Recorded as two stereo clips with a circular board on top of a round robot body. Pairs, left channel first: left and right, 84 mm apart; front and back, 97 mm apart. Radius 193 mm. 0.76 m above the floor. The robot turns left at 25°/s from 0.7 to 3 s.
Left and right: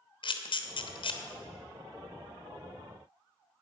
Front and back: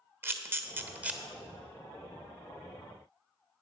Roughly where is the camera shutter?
Behind left.